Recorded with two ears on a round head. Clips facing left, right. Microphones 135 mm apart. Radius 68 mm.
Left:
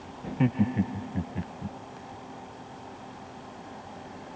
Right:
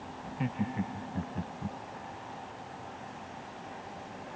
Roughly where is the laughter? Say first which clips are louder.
Left 9 dB; left.